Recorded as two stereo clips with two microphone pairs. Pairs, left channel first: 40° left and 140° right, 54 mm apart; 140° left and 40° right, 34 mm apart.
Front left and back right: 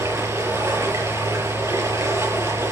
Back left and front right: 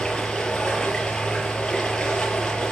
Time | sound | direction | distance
0.0 | running water | 150° right | 5 m